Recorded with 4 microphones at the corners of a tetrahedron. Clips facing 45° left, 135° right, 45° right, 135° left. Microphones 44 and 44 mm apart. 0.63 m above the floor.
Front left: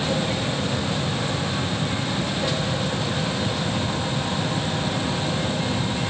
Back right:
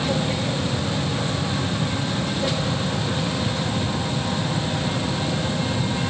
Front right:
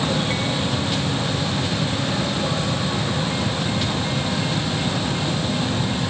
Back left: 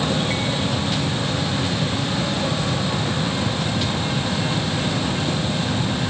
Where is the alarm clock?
No alarm clock in this recording.